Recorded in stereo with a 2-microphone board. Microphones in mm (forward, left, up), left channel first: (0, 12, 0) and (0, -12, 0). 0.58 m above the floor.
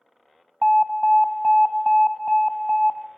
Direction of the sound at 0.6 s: 5° right (ahead or behind).